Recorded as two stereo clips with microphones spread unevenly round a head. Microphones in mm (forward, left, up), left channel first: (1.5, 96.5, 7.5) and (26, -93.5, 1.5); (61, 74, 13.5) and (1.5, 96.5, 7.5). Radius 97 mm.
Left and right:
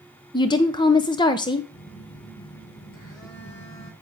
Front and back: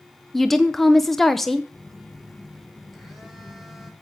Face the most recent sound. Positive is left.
turn(degrees=70)